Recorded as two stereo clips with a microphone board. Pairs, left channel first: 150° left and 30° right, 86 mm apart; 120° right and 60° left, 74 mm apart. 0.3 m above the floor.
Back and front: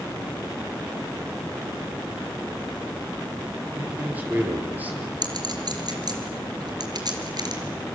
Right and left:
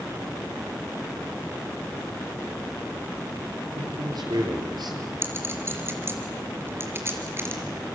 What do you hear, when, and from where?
3.8 s a man speaking: 40° left, 7 m
5.2 s a clink: 5° left, 4 m